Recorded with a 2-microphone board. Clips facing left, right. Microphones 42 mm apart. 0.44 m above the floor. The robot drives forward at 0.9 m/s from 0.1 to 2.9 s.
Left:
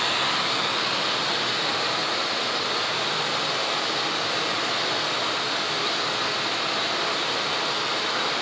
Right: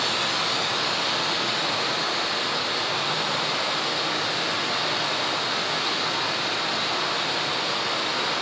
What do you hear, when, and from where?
0.0 s running water: 35° left (ahead or behind), 0.9 m; by 8.4 s 10° left (ahead or behind), 3.5 m